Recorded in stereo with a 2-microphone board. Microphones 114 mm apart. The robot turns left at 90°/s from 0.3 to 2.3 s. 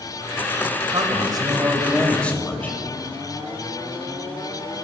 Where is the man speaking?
75° right, 1.1 m; by 2.8 s 160° left, 1.1 m.